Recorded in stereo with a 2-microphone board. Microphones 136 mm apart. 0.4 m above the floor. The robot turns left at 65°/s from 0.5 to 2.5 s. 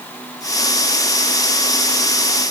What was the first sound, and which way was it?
Only background noise.